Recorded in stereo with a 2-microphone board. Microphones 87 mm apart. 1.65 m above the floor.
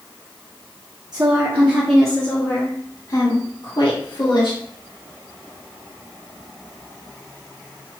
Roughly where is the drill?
I don't hear a drill.